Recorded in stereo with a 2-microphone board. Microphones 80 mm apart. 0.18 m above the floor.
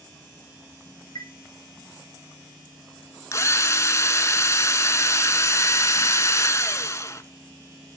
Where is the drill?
40° left (ahead or behind), 1.0 m.